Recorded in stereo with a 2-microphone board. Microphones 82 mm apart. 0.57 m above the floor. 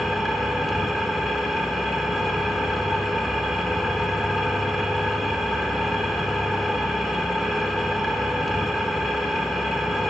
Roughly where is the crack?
I don't hear a crack.